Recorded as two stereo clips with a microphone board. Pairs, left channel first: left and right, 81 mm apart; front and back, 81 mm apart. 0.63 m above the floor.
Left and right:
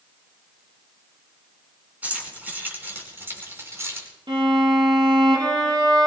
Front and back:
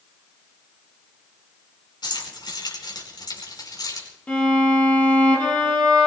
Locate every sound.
2.0 s keys jangling: 20° right, 5 m; by 4.1 s 35° right, 5 m
4.3 s a violin: 75° right, 5 m